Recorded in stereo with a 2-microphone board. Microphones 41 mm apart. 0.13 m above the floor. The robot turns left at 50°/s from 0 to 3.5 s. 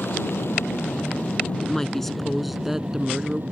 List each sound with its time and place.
0.0 s an aircraft: 110° left; by 3.5 s 65° right
1.6 s a woman speaking: 10° left (ahead or behind); by 3.4 s 20° right (ahead or behind)